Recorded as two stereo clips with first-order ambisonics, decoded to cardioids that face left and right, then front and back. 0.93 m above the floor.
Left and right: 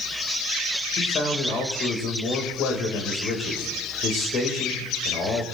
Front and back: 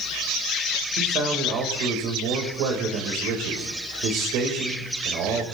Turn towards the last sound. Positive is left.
turn(degrees=145)